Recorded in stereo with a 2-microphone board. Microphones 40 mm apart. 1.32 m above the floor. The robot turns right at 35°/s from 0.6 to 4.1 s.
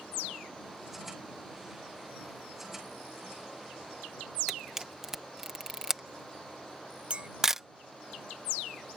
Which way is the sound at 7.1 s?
30° right (ahead or behind).